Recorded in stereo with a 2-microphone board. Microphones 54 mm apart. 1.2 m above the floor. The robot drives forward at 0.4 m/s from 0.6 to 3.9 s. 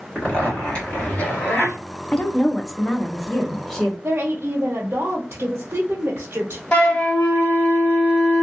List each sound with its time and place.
0.1 s a zipper: 25° left (ahead or behind), 1.6 m; by 1.8 s 35° left (ahead or behind), 1.2 m
2.1 s a woman speaking: 20° left (ahead or behind), 0.5 m; by 3.9 s 10° left (ahead or behind), 1.1 m
4.0 s a woman speaking: 45° right (ahead or behind), 0.7 m
6.7 s a flute: 25° left (ahead or behind), 1.2 m